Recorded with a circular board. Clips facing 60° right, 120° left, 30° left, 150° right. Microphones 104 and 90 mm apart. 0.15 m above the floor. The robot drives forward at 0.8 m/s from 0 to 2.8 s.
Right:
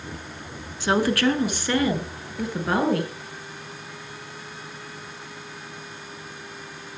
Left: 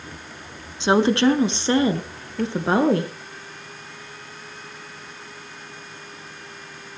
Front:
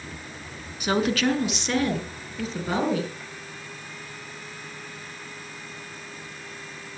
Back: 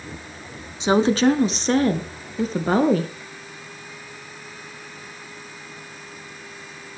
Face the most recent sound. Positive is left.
turn(degrees=175)